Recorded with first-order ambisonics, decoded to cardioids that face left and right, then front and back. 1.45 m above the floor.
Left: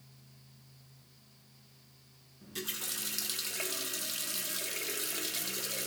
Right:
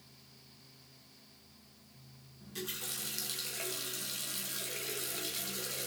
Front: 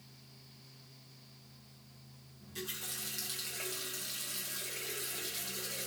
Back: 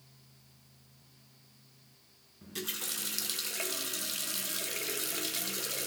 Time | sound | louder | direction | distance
2.4 | a running tap | left 2 dB, back 4 dB | 155° left | 0.7 m